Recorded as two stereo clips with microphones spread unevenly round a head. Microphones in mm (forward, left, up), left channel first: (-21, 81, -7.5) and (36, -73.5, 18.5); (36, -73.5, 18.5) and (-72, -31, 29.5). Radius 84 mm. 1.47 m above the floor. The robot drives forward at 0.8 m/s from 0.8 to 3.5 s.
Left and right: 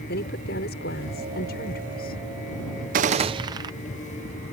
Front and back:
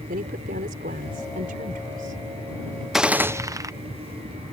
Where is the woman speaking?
145° left; by 2.8 s 155° left.